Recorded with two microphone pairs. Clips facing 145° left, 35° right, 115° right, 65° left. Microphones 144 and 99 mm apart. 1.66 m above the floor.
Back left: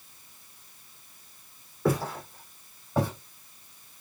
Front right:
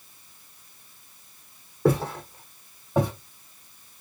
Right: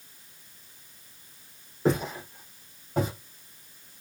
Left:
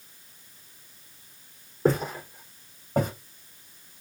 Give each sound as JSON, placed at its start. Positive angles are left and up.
{"t": 1.9, "sound": "footsteps", "azimuth_deg": 25, "distance_m": 3.5}